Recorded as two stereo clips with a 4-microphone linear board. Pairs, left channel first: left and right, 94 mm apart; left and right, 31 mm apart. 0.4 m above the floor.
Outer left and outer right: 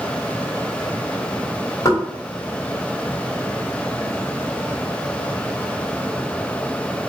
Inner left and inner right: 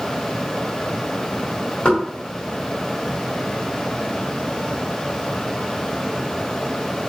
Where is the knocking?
35° left (ahead or behind), 1.8 m.